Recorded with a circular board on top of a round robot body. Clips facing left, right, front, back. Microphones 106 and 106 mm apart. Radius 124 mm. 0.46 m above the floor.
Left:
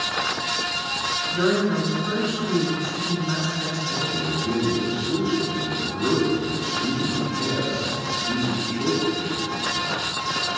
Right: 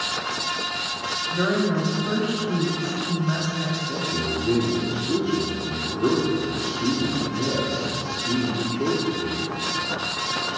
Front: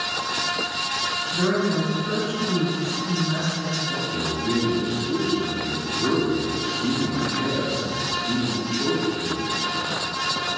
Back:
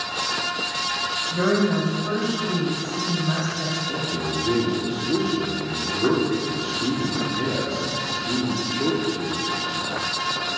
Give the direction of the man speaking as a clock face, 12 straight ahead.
5 o'clock.